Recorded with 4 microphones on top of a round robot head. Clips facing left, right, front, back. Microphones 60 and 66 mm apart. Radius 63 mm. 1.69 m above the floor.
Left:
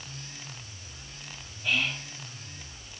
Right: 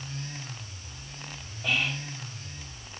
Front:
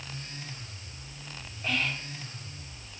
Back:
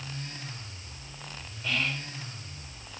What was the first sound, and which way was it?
Whispering, 65° right.